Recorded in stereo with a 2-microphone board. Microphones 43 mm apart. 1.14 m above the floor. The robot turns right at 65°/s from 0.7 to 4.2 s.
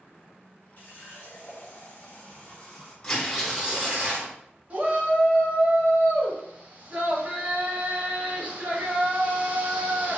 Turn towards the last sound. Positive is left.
turn(degrees=-30)  # may be behind; listen again after turning